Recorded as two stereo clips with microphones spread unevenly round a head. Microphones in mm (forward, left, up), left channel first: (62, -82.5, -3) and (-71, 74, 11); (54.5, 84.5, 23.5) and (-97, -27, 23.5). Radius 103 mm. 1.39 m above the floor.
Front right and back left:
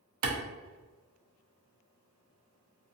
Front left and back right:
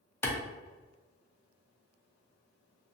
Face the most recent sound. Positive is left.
turn(degrees=115)